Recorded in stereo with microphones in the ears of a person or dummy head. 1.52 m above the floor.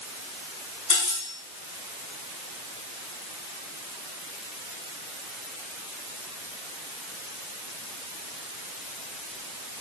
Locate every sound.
0.9 s cutlery clinking: 30° left (ahead or behind), 6.5 m